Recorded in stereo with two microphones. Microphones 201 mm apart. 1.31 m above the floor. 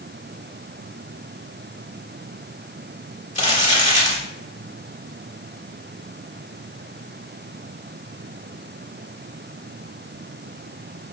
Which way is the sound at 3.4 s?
35° left (ahead or behind).